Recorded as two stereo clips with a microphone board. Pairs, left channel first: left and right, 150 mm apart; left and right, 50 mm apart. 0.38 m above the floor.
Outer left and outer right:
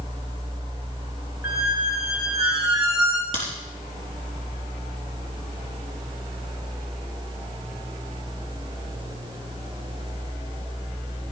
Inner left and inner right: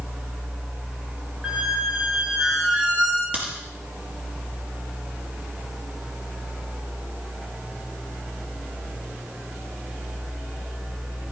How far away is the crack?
About 5 m.